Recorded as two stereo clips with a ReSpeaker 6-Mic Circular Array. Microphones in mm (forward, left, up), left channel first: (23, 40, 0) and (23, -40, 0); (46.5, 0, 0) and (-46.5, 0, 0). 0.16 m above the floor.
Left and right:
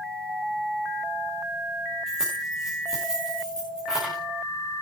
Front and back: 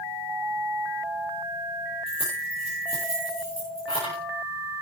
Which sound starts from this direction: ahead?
Keys jangling, at 2.1 s.